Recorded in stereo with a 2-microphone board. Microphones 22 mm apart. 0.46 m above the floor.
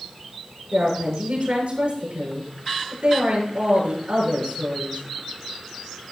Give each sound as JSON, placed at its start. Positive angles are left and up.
{"t": 0.7, "sound": "a woman speaking", "side_deg": -70, "distance_m": 6.5}